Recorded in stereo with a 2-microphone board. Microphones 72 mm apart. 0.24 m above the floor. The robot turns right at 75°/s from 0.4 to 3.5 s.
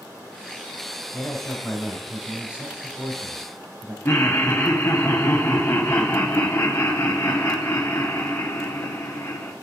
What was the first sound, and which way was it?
A man speaking, 25° left (ahead or behind).